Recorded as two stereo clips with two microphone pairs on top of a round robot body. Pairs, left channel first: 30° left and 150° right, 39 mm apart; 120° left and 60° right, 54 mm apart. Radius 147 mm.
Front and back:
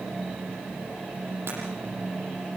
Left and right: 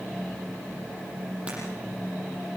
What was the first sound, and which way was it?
Breaking glass, 130° right.